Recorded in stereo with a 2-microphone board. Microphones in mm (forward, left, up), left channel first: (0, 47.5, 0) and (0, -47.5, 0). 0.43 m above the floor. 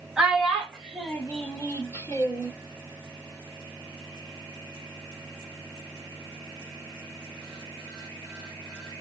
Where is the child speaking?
5° right (ahead or behind), 1.4 m; by 2.5 s 35° left (ahead or behind), 1.0 m.